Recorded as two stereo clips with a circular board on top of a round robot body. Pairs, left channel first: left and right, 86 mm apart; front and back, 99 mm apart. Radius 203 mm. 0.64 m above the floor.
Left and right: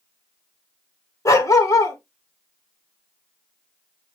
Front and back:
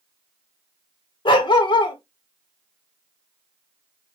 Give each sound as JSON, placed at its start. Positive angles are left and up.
{"t": 1.2, "sound": "a dog barking", "azimuth_deg": 40, "distance_m": 0.9}